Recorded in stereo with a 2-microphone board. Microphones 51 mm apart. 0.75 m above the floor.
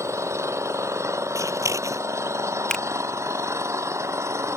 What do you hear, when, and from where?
0.0 s an engine running: 65° right (ahead or behind)
1.4 s scissors: 80° right
2.7 s a finger snap: 10° left (ahead or behind)